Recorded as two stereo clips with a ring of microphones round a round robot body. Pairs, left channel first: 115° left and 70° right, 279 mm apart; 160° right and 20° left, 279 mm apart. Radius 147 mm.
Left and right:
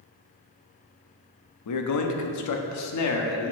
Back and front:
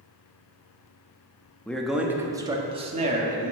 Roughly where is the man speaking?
Behind left.